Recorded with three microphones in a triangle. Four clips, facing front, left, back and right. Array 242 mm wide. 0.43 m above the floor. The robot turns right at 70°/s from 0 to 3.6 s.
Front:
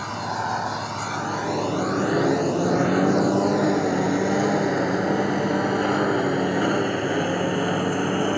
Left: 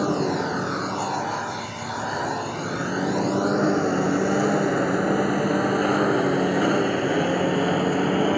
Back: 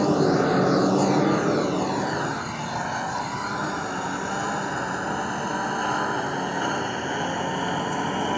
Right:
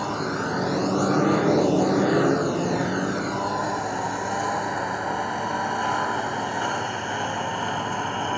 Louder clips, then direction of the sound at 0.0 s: Left 4 dB, back 8 dB; 140° left.